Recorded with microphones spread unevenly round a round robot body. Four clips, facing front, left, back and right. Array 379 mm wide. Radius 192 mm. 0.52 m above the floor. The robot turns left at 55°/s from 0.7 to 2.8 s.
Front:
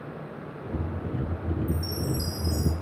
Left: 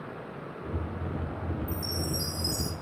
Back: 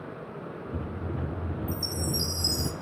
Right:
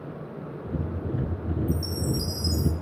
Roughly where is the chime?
Behind right.